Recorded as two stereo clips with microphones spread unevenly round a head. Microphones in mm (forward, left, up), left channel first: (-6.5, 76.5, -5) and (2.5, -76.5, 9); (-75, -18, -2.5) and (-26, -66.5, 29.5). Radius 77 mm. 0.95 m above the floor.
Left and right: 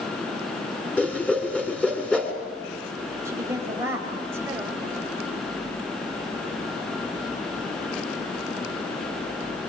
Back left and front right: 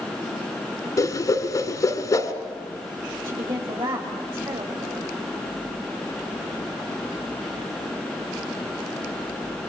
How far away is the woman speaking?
About 5 m.